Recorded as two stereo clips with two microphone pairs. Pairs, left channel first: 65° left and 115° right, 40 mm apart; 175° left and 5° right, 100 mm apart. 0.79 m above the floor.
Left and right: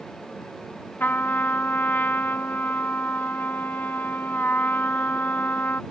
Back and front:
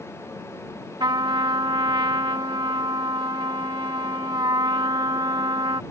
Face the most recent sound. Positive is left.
turn(degrees=35)